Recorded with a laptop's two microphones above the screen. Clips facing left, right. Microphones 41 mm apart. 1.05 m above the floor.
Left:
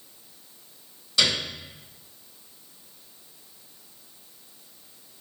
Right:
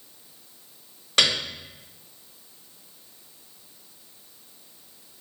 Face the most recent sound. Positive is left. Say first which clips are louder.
# right 2 dB
turn(degrees=-55)  # may be behind; listen again after turning